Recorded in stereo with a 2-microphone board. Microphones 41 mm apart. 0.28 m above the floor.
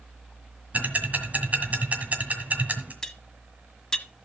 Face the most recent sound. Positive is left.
turn(degrees=15)  # may be behind; listen again after turning